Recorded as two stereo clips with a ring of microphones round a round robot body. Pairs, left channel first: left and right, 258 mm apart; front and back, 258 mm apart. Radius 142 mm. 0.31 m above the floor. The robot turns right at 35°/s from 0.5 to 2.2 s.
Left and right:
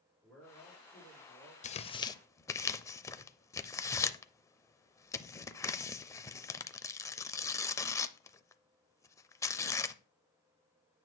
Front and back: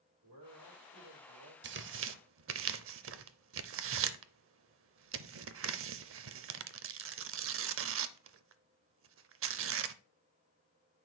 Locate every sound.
0.2 s a man speaking: 175° left, 6 m; by 1.5 s 145° right, 6 m
1.6 s tearing paper: 145° left, 0.5 m; by 10.0 s 165° left, 0.5 m